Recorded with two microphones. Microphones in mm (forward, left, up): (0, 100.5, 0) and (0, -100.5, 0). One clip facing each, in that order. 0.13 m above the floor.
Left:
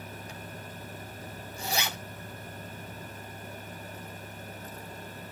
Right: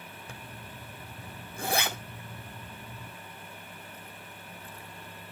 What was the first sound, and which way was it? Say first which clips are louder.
A zipper: left 3 dB; 55° right (ahead or behind).